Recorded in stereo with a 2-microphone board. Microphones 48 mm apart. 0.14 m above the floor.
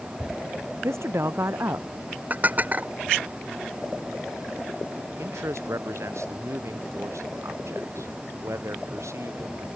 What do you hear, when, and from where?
0.8 s a woman speaking: 70° right (ahead or behind); by 1.9 s 60° right (ahead or behind)
2.3 s dishes clattering: 35° right (ahead or behind)
5.2 s a man speaking: 85° right